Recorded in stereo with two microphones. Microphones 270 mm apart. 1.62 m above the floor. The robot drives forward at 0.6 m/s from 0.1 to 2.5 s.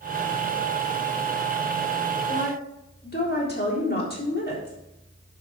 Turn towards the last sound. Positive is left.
turn(degrees=35)  # may be behind; listen again after turning